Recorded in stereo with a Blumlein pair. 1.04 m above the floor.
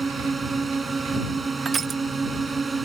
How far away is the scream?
No scream in this recording.